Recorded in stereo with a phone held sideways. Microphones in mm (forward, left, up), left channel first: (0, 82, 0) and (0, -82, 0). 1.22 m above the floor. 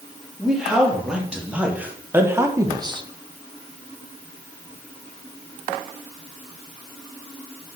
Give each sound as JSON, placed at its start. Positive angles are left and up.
{"t": 0.4, "sound": "a man speaking", "side_deg": -5, "distance_m": 3.0}